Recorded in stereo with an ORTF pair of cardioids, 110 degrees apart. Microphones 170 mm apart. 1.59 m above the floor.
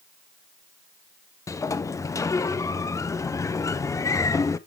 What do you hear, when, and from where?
1.5 s a sliding door: 20° left, 0.7 m